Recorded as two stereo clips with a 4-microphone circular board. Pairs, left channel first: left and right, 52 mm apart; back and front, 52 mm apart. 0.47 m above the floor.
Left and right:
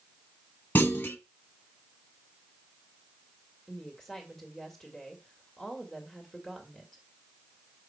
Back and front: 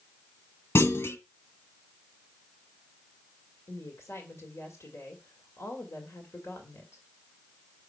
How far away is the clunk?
About 1.0 m.